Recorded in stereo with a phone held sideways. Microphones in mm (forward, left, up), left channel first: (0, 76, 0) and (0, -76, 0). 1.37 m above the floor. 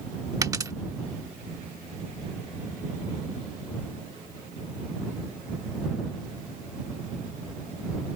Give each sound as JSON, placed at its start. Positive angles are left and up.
{"t": 0.4, "sound": "a dropped coin", "side_deg": -25}